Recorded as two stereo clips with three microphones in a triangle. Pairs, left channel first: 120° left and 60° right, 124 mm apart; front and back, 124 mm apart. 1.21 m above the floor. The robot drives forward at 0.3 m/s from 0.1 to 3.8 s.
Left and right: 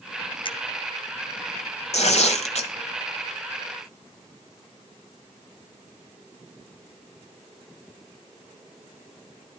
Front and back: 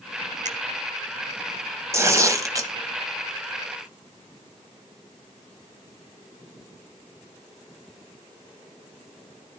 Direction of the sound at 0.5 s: 165° left.